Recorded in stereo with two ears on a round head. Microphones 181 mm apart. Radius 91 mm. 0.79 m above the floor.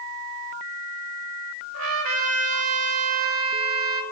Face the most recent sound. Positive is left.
turn(degrees=-80)